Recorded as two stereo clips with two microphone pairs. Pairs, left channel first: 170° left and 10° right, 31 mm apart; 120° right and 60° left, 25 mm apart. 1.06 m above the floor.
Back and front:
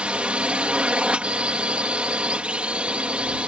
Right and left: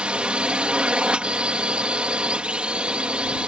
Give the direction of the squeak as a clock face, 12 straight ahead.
I don't hear a squeak.